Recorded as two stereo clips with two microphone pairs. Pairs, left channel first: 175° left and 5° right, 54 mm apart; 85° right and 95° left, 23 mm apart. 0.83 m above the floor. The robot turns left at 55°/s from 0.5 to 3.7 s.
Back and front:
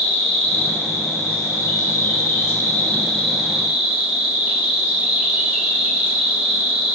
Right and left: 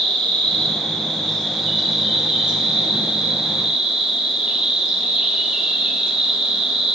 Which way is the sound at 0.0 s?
115° right.